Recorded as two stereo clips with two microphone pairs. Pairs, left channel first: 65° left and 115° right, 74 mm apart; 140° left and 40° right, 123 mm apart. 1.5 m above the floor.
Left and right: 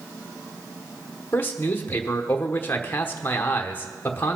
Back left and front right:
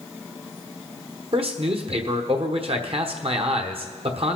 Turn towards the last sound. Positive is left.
turn(degrees=0)